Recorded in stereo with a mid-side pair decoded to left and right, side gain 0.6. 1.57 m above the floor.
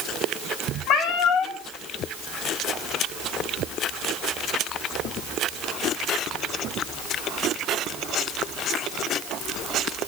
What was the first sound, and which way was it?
A cat meowing, 60° left.